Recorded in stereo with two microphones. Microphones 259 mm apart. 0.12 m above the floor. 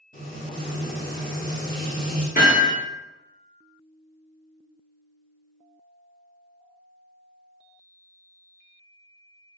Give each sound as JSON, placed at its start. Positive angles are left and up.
{"t": 0.1, "sound": "frying", "side_deg": 30, "distance_m": 1.2}
{"t": 2.4, "sound": "hammering", "side_deg": 35, "distance_m": 1.6}